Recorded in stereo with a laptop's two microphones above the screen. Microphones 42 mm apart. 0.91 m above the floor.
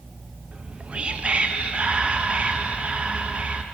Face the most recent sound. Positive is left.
turn(degrees=-30)  # may be behind; listen again after turning